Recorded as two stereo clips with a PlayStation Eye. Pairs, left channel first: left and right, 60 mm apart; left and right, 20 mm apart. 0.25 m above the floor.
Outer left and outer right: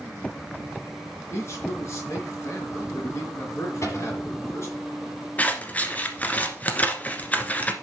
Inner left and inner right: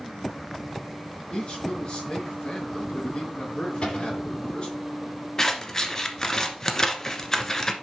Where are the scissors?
25° left (ahead or behind), 1.3 m.